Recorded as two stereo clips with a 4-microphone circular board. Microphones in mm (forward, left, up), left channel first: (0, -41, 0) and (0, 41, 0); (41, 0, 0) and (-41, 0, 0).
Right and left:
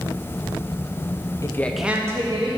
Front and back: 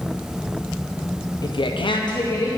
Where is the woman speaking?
40° right, 0.8 m; by 2.5 s 50° left, 1.3 m.